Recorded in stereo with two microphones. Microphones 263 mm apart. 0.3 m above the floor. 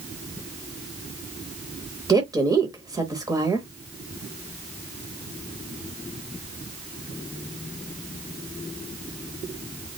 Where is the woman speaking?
15° right (ahead or behind), 0.8 m.